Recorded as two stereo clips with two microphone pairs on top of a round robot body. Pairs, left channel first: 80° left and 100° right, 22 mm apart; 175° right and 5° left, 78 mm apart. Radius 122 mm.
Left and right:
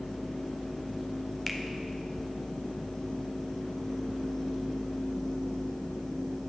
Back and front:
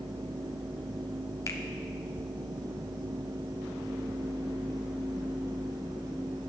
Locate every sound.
1.5 s a finger snap: 155° left, 1.5 m